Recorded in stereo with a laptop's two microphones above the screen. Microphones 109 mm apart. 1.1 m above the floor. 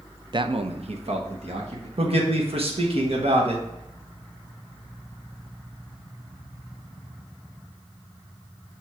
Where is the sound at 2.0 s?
70° right (ahead or behind), 1.2 m.